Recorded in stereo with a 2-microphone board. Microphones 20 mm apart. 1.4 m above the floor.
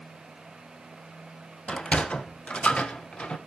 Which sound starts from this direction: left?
A sliding door, at 1.7 s.